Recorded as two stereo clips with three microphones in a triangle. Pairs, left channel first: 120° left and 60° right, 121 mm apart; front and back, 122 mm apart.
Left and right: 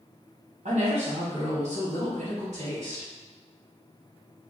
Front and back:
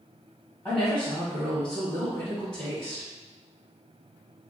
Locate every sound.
0.7 s a woman speaking: 80° right, 1.0 m